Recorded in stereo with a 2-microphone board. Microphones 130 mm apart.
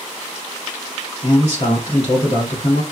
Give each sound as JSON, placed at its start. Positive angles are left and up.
{"t": 1.2, "sound": "a man speaking", "side_deg": 55, "distance_m": 2.5}